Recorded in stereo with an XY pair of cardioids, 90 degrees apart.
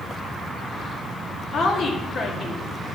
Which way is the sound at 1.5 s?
65° left.